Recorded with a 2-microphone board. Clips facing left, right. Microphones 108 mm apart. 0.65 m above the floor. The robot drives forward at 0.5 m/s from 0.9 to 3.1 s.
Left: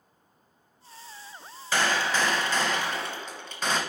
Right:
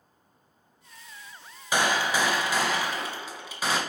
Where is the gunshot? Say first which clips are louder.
Right 1 dB; 15° right (ahead or behind), 0.6 m; by 3.8 s 10° right (ahead or behind), 1.3 m.